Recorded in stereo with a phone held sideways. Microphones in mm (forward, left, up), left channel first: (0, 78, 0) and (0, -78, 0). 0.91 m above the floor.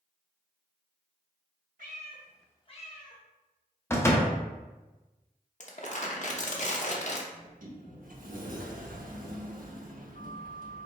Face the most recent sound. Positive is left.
turn(degrees=-60)  # may be behind; listen again after turning